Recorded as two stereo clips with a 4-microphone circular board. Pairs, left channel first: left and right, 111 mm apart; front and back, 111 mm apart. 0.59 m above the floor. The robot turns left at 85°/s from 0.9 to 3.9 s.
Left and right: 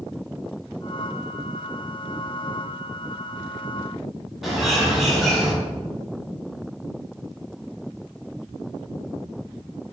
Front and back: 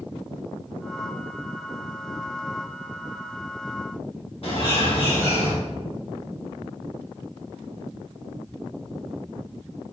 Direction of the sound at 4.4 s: Straight ahead.